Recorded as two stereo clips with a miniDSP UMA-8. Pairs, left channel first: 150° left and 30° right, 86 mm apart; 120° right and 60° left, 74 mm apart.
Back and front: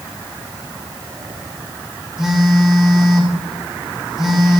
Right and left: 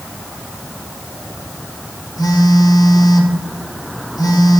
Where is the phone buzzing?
115° right, 2.5 m.